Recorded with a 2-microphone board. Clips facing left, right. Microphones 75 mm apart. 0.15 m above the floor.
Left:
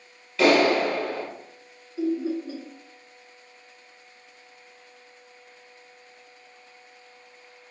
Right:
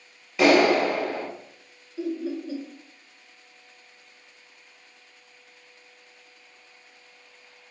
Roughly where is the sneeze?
I don't hear a sneeze.